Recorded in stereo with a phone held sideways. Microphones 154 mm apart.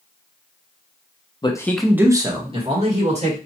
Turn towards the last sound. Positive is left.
turn(degrees=-50)  # may be behind; listen again after turning